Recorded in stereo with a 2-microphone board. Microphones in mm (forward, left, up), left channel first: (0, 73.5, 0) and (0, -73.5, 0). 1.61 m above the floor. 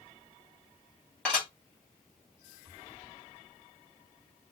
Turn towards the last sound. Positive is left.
turn(degrees=5)  # may be behind; listen again after turning